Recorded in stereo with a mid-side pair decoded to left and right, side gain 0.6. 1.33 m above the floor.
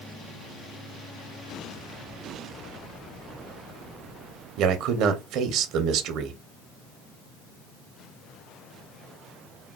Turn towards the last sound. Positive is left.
turn(degrees=-65)